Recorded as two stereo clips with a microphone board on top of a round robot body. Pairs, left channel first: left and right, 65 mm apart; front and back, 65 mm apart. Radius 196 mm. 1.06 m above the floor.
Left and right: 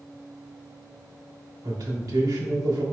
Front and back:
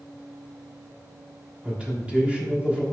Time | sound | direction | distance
1.6 | a man speaking | 110° right | 1.3 m